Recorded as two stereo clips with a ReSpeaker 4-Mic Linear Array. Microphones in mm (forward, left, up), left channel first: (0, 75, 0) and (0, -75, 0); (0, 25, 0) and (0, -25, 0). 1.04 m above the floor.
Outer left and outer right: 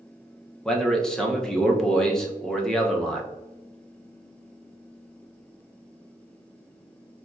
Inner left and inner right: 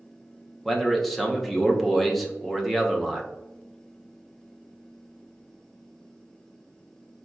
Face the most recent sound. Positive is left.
turn(degrees=5)  # may be behind; listen again after turning